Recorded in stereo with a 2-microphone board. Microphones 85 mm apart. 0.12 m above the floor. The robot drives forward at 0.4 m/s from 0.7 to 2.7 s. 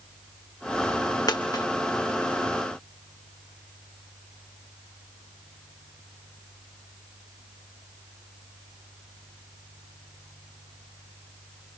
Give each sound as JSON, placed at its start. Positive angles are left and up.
{"t": 1.3, "sound": "a dropped coin", "side_deg": 50, "distance_m": 2.5}